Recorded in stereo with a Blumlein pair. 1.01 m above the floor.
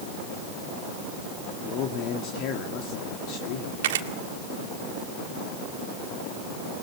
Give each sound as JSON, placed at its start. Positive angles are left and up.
{"t": 1.6, "sound": "a man speaking", "azimuth_deg": 40, "distance_m": 2.0}
{"t": 3.8, "sound": "a camera shutter", "azimuth_deg": -55, "distance_m": 1.6}